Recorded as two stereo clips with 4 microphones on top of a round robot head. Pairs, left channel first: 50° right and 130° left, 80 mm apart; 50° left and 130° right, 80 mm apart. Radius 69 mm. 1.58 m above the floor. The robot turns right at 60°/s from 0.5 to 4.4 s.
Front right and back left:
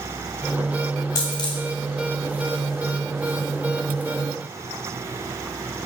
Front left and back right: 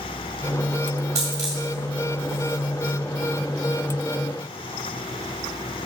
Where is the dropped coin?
85° right, 1.7 m; by 1.6 s 55° right, 1.7 m.